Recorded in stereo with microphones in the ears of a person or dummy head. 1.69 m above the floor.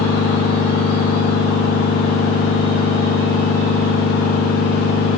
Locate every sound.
0.0 s a machine running: 40° left (ahead or behind), 0.9 m